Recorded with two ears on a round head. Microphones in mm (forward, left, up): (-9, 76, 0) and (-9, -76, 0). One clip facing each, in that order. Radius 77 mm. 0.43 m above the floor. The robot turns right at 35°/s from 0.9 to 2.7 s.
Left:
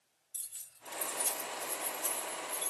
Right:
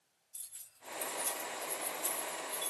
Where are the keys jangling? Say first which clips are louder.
Left 1 dB; 50° left (ahead or behind), 1.4 m; by 2.7 s 10° right (ahead or behind), 1.4 m.